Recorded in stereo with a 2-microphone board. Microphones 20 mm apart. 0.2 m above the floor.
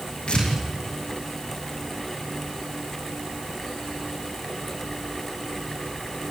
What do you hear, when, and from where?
0.3 s tearing paper: 70° left (ahead or behind), 6.5 m